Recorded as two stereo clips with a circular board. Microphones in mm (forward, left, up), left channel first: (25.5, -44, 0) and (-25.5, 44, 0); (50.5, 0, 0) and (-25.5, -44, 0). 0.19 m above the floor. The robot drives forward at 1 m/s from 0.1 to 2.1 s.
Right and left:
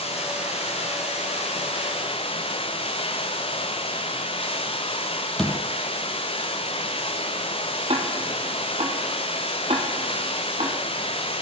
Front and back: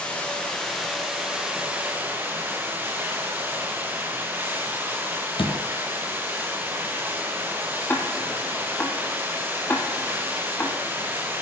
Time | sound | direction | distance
0.0 | running water | 50° right | 4 m
5.4 | a door slam | 25° left | 3 m
7.9 | ticking | 95° left | 2 m